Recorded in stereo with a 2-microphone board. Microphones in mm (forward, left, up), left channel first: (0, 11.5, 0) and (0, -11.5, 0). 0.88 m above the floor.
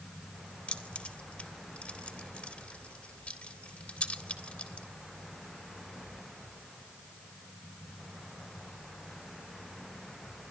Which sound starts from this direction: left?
Keys jangling, at 0.7 s.